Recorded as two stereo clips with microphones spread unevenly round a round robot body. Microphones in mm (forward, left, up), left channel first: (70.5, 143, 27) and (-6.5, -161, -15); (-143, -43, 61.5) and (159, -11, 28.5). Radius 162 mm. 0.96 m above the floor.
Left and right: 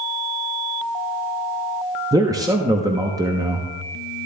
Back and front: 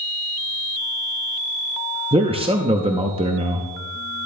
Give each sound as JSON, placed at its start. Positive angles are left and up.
{"t": 2.1, "sound": "a man speaking", "azimuth_deg": -45, "distance_m": 0.9}